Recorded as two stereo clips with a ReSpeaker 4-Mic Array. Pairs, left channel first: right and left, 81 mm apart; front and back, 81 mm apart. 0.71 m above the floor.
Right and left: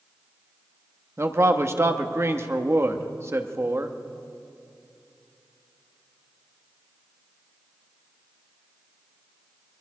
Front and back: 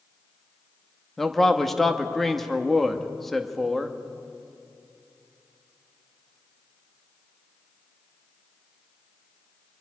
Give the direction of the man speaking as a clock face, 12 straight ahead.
9 o'clock.